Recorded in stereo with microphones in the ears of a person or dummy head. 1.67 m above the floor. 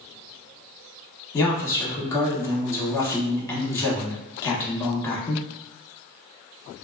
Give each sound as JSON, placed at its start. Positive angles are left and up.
{"t": 1.3, "sound": "a man speaking", "side_deg": 20, "distance_m": 0.8}